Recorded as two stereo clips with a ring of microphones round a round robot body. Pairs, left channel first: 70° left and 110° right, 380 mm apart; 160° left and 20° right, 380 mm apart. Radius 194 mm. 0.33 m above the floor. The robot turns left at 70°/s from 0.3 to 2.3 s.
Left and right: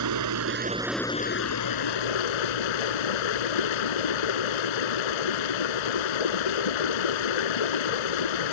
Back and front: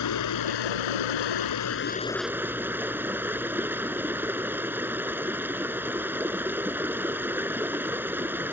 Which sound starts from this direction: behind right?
Running water, at 0.0 s.